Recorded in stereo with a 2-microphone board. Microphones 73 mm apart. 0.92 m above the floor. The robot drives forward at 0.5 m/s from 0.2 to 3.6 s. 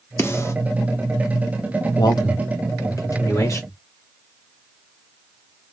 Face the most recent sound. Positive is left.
turn(degrees=40)  # may be behind; listen again after turning